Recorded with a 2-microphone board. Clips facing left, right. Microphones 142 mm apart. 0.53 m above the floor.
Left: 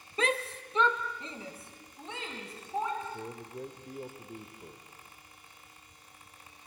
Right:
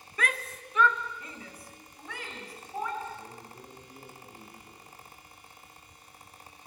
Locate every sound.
0.2 s a shout: 20° left (ahead or behind), 0.7 m
3.0 s a man speaking: 60° left (ahead or behind), 2 m